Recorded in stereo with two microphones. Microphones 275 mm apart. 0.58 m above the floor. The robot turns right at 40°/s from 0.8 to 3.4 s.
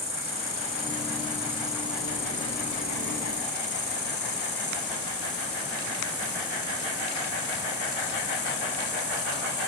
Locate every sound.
0.0 s an insect: 50° right, 5 m; by 9.7 s 55° left, 5 m